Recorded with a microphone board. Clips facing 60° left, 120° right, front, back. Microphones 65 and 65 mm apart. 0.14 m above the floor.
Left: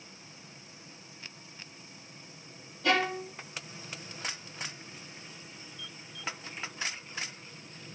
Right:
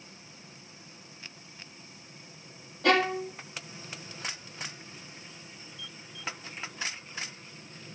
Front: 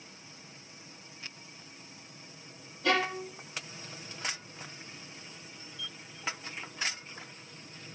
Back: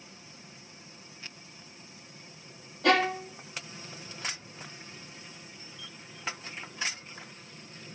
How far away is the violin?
About 1.5 m.